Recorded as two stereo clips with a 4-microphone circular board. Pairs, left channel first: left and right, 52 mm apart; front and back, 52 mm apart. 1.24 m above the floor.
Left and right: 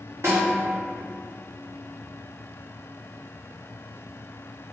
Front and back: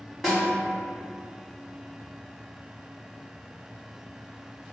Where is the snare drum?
90° right, 1.1 m.